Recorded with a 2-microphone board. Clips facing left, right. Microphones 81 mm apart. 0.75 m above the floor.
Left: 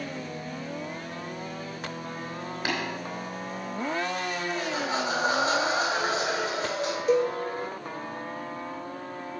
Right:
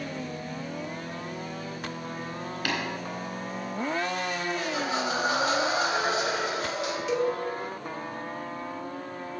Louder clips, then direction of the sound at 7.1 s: Left 4 dB; 45° left (ahead or behind).